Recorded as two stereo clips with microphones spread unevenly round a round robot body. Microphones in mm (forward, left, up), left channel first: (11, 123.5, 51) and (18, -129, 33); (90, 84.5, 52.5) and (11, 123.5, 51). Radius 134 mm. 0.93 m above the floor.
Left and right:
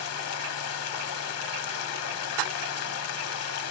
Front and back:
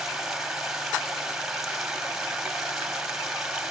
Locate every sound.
0.0 s running water: 65° left, 0.9 m